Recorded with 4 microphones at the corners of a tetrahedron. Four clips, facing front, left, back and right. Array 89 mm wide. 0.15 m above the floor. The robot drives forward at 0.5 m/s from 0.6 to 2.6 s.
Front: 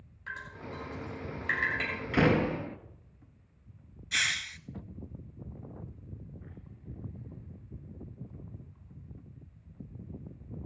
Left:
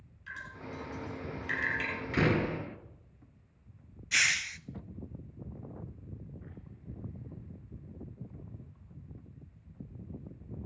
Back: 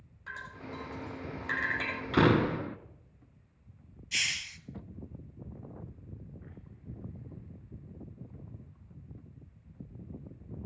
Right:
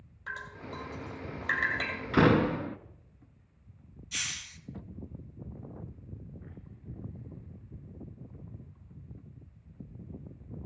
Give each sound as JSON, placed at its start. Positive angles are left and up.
{"t": 0.3, "sound": "dripping", "azimuth_deg": -110, "distance_m": 5.0}
{"t": 2.1, "sound": "a door slam", "azimuth_deg": -120, "distance_m": 1.0}
{"t": 4.1, "sound": "a hiss", "azimuth_deg": 65, "distance_m": 0.5}